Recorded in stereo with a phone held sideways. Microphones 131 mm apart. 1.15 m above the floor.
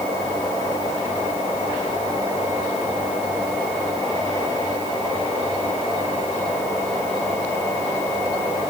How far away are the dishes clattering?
No dishes clattering in this recording.